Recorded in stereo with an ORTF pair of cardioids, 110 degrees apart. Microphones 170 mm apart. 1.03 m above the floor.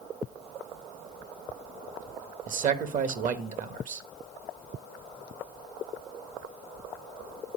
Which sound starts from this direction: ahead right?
A man speaking, at 2.5 s.